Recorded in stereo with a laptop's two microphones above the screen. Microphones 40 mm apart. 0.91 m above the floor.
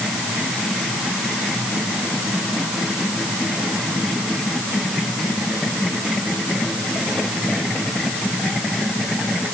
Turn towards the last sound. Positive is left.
No sound to turn to.